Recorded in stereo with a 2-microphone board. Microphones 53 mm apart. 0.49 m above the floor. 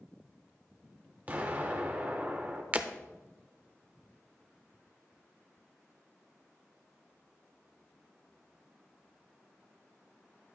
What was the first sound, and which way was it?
An explosion, 35° right (ahead or behind).